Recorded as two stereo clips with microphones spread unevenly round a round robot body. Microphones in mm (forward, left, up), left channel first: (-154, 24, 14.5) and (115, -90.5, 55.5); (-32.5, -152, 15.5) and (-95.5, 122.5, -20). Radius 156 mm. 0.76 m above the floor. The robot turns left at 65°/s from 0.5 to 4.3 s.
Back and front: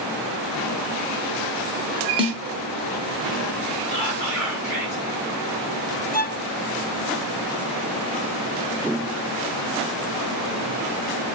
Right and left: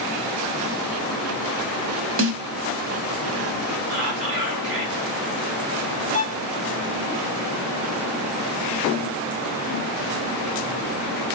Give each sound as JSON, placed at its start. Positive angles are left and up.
{"t": 2.2, "sound": "a snare drum", "azimuth_deg": 55, "distance_m": 1.1}
{"t": 3.9, "sound": "whispering", "azimuth_deg": 70, "distance_m": 5.0}
{"t": 6.1, "sound": "a violin", "azimuth_deg": -145, "distance_m": 0.8}